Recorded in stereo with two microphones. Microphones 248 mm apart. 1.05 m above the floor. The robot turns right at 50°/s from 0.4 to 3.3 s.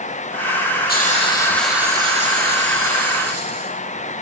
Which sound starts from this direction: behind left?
A hiss, at 0.9 s.